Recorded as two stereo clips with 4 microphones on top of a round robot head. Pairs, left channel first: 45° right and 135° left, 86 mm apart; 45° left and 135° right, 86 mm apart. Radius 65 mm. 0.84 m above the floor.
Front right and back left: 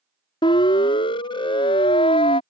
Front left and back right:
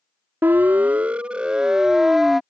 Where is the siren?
65° right; by 2.4 s 45° right.